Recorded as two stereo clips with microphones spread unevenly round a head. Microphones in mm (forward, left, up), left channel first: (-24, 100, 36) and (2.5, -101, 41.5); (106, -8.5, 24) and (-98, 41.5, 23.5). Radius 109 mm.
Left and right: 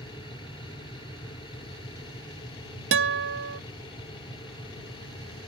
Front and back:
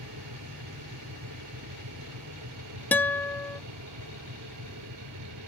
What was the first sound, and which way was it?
A machine running, 165° left.